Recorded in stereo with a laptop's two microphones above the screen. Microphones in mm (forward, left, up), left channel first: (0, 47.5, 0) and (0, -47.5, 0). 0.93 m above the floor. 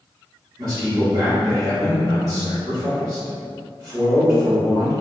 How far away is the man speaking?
About 1.2 m.